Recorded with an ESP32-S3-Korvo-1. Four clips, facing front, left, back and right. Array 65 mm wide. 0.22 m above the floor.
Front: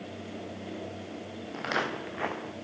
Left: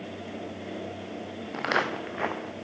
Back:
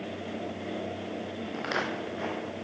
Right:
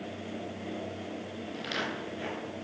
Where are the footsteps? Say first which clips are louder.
Left 9 dB, front 1 dB; 95° left, 1.7 m; by 2.5 s 60° left, 1.7 m.